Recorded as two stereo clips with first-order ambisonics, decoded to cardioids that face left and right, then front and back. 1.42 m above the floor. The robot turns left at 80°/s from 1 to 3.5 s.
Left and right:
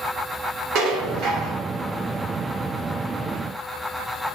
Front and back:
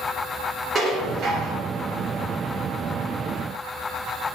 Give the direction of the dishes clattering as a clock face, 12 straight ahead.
4 o'clock.